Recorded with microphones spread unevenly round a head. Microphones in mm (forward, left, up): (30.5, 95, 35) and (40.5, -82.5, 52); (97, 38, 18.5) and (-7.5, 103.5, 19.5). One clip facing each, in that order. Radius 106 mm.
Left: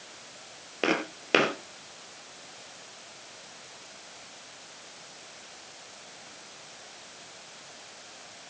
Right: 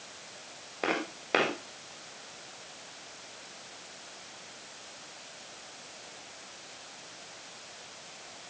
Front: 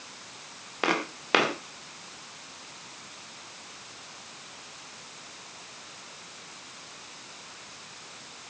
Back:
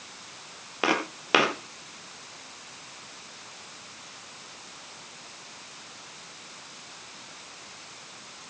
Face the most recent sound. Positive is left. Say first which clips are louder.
# left 4 dB, back 2 dB
turn(degrees=70)